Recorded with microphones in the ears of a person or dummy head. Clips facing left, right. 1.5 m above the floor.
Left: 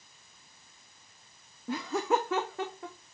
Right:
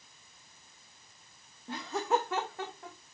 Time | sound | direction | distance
1.7 | laughter | 75° left (ahead or behind) | 0.7 m